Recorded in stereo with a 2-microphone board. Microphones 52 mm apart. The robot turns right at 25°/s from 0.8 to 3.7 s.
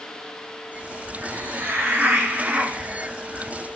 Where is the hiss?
65° right, 1.8 m; by 3.5 s 10° right, 1.8 m.